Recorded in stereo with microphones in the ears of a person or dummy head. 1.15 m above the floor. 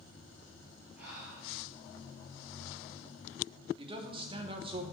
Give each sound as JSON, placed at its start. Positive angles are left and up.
{"t": 1.0, "sound": "breathing", "side_deg": -10, "distance_m": 3.5}
{"t": 3.8, "sound": "a man speaking", "side_deg": -25, "distance_m": 0.9}